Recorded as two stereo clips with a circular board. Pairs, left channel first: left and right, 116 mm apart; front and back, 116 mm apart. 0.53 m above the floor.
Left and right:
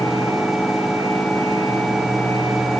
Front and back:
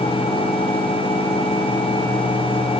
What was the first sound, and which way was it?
Only background noise.